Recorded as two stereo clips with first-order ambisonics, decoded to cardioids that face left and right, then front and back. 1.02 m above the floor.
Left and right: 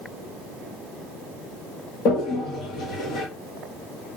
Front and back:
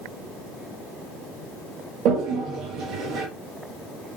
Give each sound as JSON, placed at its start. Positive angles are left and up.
{"t": 2.0, "sound": "a toilet flushing", "azimuth_deg": 140, "distance_m": 1.1}